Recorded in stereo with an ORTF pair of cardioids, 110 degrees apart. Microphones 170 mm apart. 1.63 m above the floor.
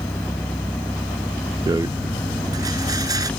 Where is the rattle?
20° right.